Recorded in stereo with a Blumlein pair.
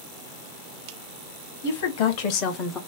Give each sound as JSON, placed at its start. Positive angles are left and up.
{"t": 1.6, "sound": "a woman speaking", "azimuth_deg": 55, "distance_m": 1.7}